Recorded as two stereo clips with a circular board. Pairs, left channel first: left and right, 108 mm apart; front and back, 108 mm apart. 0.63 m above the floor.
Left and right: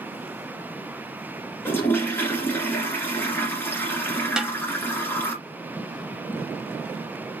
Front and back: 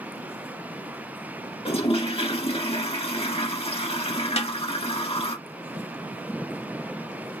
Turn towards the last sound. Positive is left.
turn(degrees=-5)